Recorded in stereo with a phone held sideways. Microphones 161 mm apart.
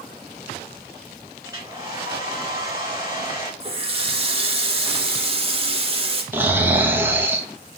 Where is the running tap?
35° right (ahead or behind), 1.4 m.